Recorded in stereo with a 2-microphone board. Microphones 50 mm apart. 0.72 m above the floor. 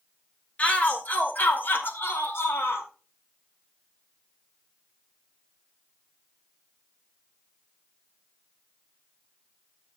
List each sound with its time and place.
0.6 s a shout: 30° left (ahead or behind), 1.9 m; by 2.9 s 65° left (ahead or behind), 2.5 m